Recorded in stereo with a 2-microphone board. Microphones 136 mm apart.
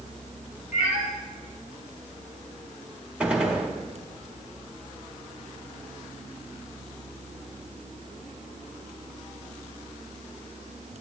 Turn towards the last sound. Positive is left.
turn(degrees=-10)  # may be behind; listen again after turning